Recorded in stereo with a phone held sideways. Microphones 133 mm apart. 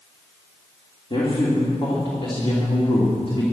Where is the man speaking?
40° left (ahead or behind), 3 m.